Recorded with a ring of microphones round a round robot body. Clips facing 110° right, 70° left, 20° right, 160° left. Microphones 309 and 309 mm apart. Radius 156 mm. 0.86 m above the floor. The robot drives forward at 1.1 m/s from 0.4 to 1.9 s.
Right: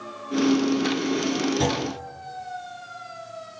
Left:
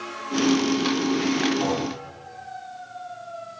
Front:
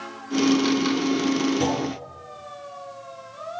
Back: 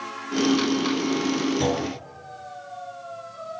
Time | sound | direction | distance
1.6 | a clunk | 120° right | 8 m